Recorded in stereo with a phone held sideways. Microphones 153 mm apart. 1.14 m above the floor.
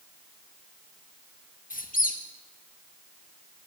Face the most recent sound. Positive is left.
turn(degrees=65)  # may be behind; listen again after turning